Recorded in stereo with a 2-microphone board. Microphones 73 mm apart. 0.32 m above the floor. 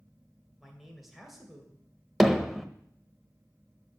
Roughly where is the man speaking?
Centre.